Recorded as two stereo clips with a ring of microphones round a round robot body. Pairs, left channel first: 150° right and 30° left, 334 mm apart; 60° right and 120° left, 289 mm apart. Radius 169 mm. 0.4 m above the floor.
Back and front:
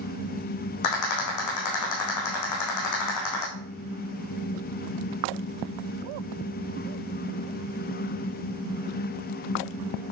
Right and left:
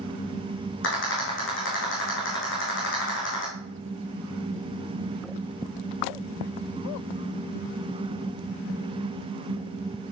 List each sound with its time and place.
0.8 s a rattle: 115° right, 4.5 m